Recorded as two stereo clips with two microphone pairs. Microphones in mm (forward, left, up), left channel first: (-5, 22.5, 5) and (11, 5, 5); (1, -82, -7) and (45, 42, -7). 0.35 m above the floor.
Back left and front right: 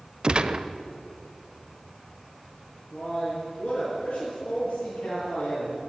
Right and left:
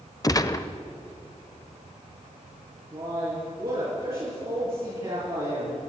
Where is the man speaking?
120° left, 5.5 m.